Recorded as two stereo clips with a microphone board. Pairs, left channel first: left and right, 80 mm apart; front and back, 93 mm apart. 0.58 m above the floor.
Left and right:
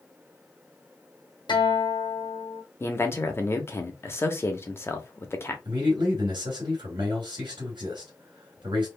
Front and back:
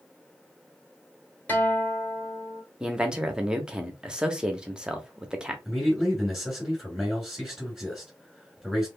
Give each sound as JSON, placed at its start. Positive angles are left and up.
{"t": 1.5, "sound": "a guitar", "azimuth_deg": 75, "distance_m": 1.3}
{"t": 2.8, "sound": "a man speaking", "azimuth_deg": 105, "distance_m": 0.9}
{"t": 5.7, "sound": "a man speaking", "azimuth_deg": -90, "distance_m": 2.0}